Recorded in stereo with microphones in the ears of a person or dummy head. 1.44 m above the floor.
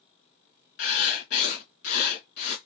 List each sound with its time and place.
0.8 s writing: 60° left (ahead or behind), 1.9 m